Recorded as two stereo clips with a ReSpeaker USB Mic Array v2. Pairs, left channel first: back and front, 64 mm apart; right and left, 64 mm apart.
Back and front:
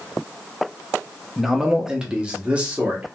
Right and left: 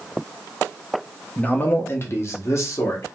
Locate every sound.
1.4 s a man speaking: 80° right, 0.7 m; by 3.2 s 65° right, 1.4 m